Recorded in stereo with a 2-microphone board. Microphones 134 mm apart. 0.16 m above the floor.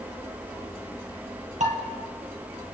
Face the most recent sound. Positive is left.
turn(degrees=-65)  # may be behind; listen again after turning